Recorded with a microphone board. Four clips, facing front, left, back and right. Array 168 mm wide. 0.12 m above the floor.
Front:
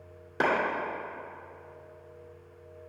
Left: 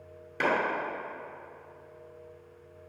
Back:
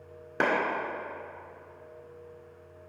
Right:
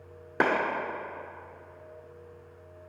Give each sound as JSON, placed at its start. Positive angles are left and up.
{"t": 0.4, "sound": "a clap", "azimuth_deg": -110, "distance_m": 1.9}